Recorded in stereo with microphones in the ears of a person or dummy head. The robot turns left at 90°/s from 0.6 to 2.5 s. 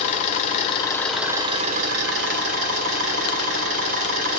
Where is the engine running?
45° left, 1.6 m; by 4.4 s 125° right, 1.6 m.